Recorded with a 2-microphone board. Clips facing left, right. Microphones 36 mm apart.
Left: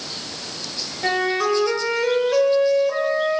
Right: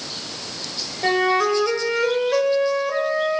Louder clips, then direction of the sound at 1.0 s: Right 2 dB; 10° right (ahead or behind).